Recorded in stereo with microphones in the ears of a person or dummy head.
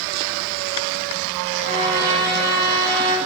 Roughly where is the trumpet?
Right.